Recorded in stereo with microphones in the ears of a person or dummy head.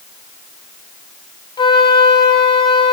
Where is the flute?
30° left (ahead or behind), 2.5 m.